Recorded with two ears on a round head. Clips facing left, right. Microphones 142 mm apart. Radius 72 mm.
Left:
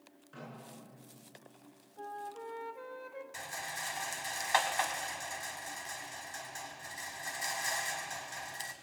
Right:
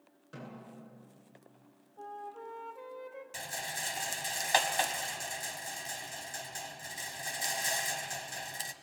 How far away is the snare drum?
About 9.5 m.